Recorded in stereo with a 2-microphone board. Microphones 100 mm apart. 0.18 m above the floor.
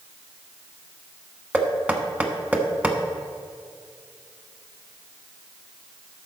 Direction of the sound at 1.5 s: 15° right (ahead or behind).